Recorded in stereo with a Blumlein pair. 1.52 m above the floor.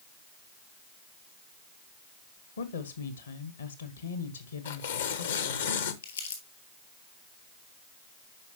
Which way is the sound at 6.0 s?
65° left.